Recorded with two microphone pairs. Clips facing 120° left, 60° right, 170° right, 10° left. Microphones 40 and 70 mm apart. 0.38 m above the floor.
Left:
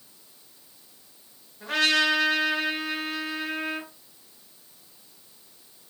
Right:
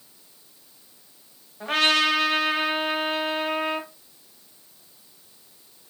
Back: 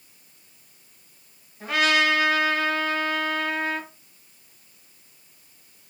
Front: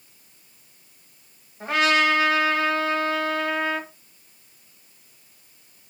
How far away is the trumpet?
About 1.1 m.